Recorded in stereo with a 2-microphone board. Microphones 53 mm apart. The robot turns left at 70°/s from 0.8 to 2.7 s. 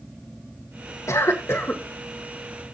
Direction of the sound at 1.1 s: 95° left.